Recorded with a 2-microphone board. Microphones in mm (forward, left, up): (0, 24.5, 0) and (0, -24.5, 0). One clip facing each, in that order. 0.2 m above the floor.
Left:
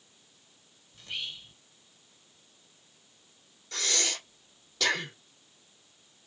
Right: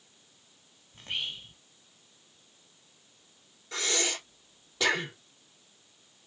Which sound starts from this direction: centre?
Breathing, at 3.7 s.